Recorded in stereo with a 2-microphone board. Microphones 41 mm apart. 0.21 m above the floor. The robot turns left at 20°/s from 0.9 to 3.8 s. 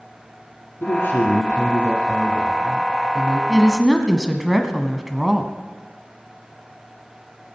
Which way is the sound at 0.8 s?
75° left.